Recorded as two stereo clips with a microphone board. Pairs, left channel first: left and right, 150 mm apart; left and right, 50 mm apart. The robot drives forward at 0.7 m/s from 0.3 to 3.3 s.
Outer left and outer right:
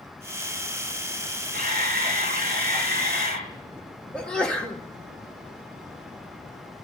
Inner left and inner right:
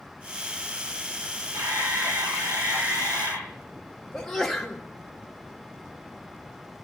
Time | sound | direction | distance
1.5 | a camera shutter | 90° right | 5.5 m
4.1 | a sneeze | 5° left (ahead or behind) | 1.8 m